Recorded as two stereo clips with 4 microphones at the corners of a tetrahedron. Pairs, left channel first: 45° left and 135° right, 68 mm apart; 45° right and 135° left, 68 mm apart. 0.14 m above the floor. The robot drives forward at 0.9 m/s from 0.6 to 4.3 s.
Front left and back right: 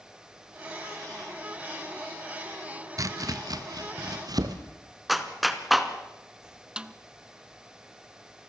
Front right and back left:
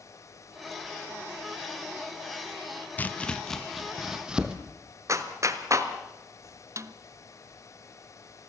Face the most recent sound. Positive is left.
turn(degrees=155)